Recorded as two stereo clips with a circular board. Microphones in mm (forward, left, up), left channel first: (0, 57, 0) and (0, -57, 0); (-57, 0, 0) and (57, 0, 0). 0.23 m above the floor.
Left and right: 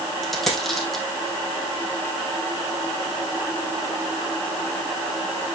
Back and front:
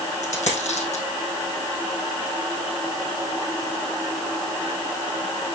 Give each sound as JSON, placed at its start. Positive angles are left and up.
{"t": 0.2, "sound": "a dropped coin", "azimuth_deg": 175, "distance_m": 3.5}